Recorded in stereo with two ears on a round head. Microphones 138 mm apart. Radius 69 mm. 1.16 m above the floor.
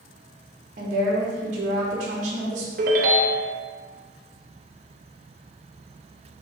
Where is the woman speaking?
50° right (ahead or behind), 0.7 m.